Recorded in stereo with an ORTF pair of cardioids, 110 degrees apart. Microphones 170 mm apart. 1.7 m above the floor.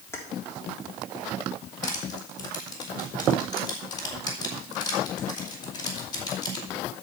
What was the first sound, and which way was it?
Keys jangling, 15° left.